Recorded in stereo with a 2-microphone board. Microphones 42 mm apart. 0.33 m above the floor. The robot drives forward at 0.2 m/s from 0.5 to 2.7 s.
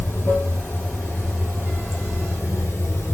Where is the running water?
70° left (ahead or behind), 1.6 m; by 3.1 s 85° left, 1.5 m.